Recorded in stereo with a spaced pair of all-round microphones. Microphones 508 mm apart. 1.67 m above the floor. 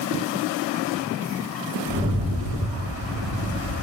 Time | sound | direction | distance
1.9 | a rattle | 10° right (ahead or behind) | 1.1 m